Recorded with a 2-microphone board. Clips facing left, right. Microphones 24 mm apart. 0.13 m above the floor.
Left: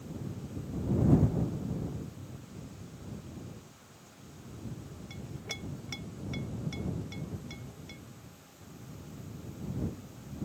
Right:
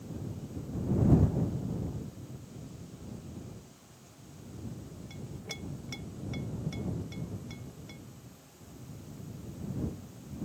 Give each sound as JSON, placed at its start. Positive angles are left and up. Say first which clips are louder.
{"t": 5.1, "sound": "a clink", "louder": "left 2 dB", "side_deg": 15}